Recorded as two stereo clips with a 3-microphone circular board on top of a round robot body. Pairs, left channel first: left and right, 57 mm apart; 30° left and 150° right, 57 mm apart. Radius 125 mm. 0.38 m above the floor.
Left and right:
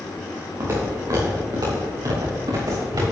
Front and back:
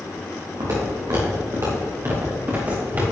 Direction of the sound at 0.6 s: 130° right.